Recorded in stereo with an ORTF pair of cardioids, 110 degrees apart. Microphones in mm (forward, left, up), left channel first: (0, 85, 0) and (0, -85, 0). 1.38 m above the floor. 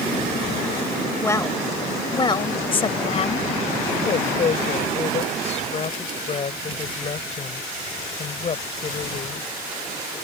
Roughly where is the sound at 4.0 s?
Ahead left.